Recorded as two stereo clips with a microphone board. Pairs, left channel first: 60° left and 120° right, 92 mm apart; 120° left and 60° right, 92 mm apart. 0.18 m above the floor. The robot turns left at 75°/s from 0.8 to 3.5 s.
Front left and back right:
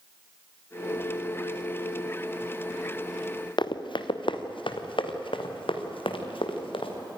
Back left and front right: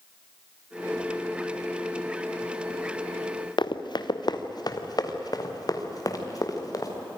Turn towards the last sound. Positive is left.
turn(degrees=70)